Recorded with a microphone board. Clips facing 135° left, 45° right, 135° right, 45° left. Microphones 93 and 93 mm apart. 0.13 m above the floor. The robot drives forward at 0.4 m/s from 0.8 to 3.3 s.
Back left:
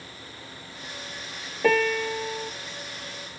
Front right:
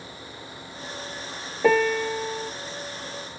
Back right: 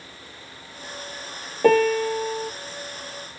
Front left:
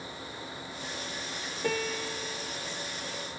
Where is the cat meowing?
I don't hear a cat meowing.